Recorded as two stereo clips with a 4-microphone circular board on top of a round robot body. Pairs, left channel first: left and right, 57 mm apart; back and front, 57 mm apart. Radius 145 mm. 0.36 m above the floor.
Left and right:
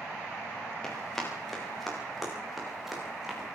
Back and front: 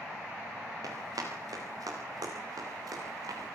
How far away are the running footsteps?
About 9 m.